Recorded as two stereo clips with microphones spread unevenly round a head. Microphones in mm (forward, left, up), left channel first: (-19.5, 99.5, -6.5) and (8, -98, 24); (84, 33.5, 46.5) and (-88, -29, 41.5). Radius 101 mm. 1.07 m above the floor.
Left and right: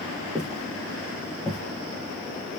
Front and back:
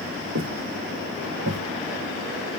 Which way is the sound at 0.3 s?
160° right.